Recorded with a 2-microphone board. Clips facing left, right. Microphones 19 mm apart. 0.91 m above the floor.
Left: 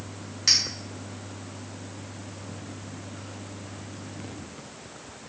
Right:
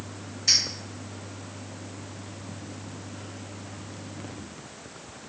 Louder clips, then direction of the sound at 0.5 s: Even; 70° left (ahead or behind).